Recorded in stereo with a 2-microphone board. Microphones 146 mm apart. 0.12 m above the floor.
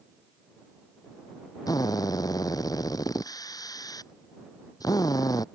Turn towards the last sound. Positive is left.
turn(degrees=25)  # may be behind; listen again after turning